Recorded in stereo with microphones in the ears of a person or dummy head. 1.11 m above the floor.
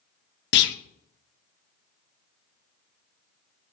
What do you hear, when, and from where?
0.5 s a clunk: 55° left (ahead or behind), 0.5 m